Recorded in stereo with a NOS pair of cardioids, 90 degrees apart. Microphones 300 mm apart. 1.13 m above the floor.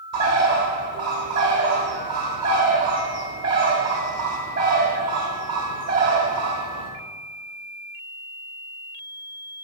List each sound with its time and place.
0.1 s a bird: 55° right, 1.5 m